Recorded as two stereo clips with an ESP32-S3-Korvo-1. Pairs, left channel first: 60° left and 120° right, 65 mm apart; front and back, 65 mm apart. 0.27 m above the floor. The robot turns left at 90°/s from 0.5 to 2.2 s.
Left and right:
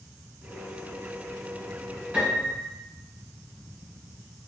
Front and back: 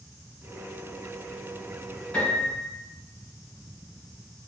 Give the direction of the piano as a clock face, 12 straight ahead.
2 o'clock.